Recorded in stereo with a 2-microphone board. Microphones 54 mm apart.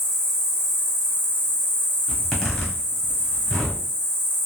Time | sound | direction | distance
0.0 | an insect | 50° right (ahead or behind) | 1.2 m
2.1 | a zipper | 15° left (ahead or behind) | 0.9 m